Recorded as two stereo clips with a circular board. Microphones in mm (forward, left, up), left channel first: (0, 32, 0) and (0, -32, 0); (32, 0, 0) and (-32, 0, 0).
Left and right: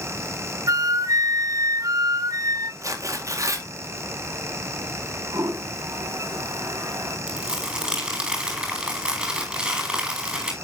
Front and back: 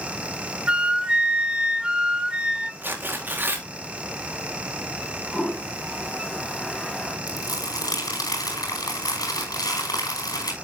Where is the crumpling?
10° right, 5 m.